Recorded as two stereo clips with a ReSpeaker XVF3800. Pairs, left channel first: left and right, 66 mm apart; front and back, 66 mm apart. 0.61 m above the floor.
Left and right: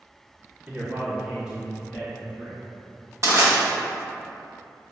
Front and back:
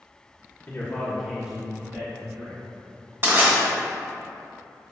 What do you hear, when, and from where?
0.7 s a man speaking: 25° right, 1.2 m; by 2.6 s 175° right, 1.8 m
3.2 s crushing: 130° right, 1.5 m